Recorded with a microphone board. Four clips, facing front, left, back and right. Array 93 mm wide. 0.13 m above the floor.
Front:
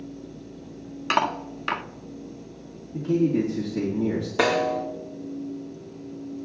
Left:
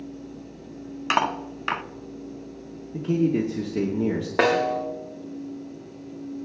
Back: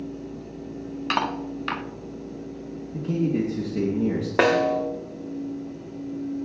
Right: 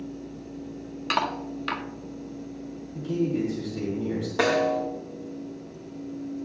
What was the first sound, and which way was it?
Cutlery clinking, 70° left.